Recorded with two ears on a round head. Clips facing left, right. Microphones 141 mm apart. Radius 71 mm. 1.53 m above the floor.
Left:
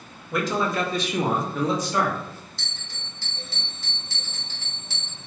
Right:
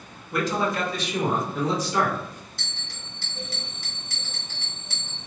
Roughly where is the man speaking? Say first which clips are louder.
Left 1 dB; left.